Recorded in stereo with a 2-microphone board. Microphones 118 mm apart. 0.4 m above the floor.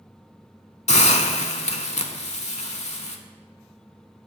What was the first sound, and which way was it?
A hiss, 70° left (ahead or behind).